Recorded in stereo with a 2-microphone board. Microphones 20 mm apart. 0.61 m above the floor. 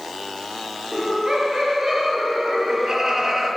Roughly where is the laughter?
Right.